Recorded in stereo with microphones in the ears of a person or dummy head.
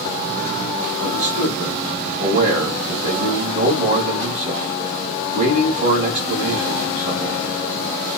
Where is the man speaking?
45° right (ahead or behind), 2.5 m.